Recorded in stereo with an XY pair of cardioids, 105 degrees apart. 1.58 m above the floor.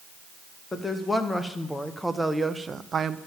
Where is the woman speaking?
20° left, 2.0 m; by 3.2 s 55° right, 0.8 m.